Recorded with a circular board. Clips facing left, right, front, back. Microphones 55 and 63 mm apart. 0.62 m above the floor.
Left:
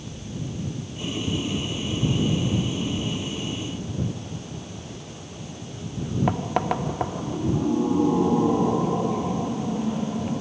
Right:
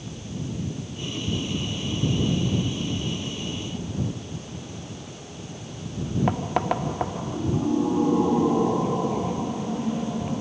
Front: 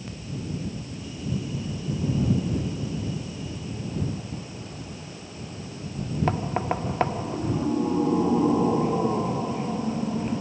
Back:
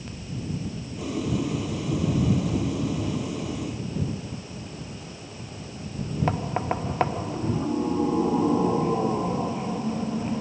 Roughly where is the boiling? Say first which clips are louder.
Left 3 dB, back 8 dB; behind.